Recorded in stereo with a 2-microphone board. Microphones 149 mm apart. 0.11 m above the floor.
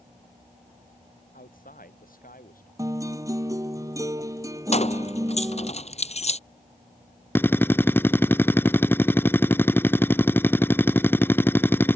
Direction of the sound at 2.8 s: 20° right (ahead or behind).